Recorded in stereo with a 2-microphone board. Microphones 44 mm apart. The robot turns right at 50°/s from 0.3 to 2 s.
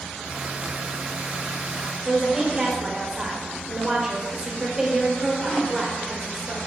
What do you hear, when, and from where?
2.0 s a woman speaking: 20° right (ahead or behind), 3.5 m